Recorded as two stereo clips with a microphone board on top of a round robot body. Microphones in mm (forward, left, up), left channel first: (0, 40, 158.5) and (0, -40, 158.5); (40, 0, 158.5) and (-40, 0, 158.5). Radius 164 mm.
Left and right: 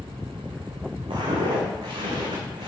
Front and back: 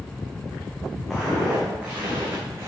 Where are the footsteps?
90° right, 2.5 m; by 2.7 s 125° right, 2.5 m.